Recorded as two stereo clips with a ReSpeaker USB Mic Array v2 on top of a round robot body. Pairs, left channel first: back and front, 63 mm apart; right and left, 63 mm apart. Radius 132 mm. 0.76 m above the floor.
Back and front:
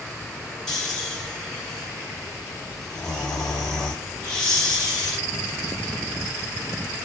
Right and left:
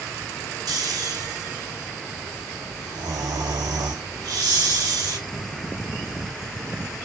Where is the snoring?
100° left, 2 m.